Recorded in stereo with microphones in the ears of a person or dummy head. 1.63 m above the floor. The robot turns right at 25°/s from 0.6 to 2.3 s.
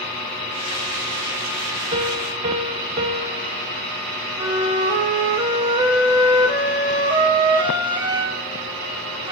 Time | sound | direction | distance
1.9 | a piano | 20° right (ahead or behind) | 0.9 m
4.4 | a flute | 25° right (ahead or behind) | 1.5 m